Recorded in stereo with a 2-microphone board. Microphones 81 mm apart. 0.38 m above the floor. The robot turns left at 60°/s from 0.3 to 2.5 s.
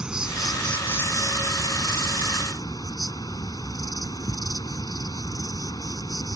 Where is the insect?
170° right; by 6.4 s 60° left.